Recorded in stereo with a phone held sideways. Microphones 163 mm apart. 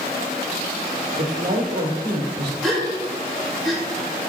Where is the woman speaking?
60° right (ahead or behind), 1.4 m.